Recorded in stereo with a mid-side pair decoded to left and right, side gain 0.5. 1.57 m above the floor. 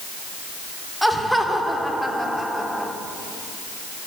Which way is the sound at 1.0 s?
5° right.